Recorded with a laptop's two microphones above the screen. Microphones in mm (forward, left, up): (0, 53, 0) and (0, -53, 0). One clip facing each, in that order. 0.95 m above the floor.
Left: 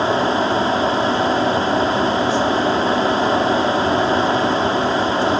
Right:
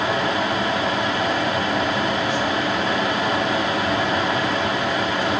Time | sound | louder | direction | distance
0.0 | a fan | left 4 dB | 30° left (ahead or behind) | 1.0 m